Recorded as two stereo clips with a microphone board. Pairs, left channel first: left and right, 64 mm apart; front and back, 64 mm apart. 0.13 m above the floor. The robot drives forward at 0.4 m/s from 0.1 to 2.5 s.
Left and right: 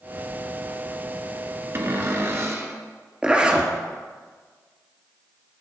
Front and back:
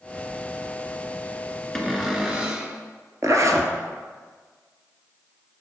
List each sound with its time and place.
1.8 s a cupboard door: 85° right, 0.7 m; by 2.8 s 115° right, 0.7 m
3.2 s a zipper: 160° right, 0.7 m